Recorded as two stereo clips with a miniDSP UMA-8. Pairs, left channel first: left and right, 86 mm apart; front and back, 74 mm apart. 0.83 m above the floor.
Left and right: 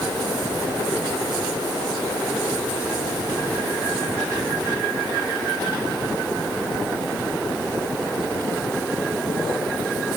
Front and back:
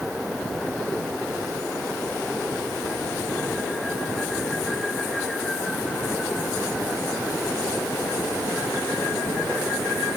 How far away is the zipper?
I don't hear a zipper.